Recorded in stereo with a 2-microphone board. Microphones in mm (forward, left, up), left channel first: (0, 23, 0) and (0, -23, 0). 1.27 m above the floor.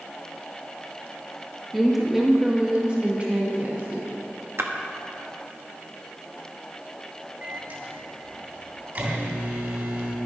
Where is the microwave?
40° right (ahead or behind), 3 m.